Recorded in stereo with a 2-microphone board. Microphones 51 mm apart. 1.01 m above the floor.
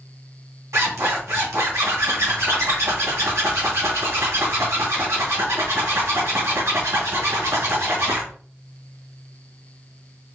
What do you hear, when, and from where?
0.7 s a zipper: 80° right, 2.5 m